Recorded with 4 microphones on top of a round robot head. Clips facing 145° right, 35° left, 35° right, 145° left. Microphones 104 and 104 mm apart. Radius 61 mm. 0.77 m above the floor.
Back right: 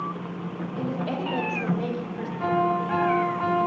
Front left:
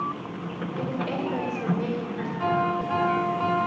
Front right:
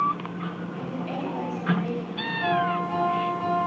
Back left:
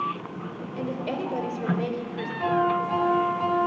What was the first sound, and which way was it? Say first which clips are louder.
A woman speaking: even, back left 4 dB; 125° left.